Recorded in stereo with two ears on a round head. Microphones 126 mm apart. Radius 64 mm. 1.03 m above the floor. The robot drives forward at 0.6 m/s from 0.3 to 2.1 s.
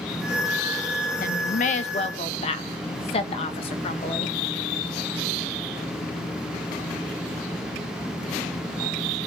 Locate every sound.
1.2 s a woman speaking: 65° left (ahead or behind), 0.6 m; by 4.4 s 45° left (ahead or behind), 0.8 m